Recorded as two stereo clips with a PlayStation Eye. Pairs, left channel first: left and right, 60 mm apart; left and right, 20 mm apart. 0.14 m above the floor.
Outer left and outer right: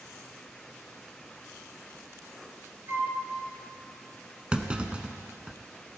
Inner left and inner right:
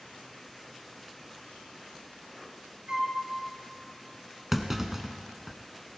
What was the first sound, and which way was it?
A flute, 40° right (ahead or behind).